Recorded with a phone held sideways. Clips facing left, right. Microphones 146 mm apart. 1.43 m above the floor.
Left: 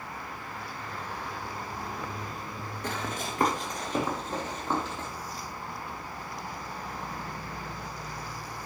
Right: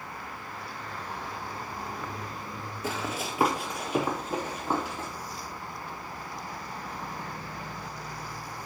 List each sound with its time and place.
2.8 s running footsteps: 5° right (ahead or behind), 1.9 m; by 5.1 s 10° right (ahead or behind), 3.5 m